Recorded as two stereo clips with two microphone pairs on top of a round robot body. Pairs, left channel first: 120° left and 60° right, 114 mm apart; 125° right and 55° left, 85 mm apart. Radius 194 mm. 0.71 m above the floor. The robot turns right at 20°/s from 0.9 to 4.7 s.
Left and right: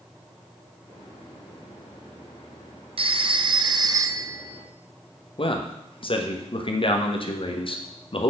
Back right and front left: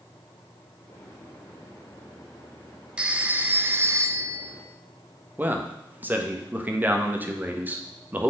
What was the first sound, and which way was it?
A phone ringing, 20° right.